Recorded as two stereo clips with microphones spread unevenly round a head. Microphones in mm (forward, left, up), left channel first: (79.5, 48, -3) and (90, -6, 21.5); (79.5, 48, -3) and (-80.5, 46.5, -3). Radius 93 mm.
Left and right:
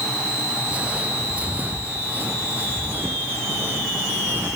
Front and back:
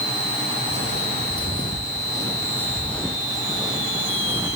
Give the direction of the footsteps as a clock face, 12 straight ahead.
1 o'clock.